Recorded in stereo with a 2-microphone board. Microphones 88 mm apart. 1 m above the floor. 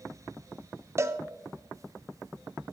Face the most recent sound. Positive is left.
turn(degrees=-30)  # may be behind; listen again after turning